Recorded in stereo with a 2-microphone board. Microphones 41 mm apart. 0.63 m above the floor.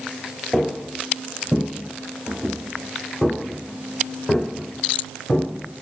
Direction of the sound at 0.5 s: Centre (ahead or behind).